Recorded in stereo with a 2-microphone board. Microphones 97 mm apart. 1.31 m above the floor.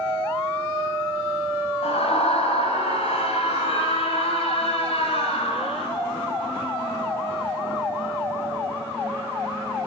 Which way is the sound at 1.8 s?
85° left.